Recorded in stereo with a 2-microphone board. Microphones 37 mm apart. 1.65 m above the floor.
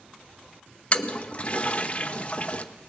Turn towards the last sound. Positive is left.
turn(degrees=35)  # may be behind; listen again after turning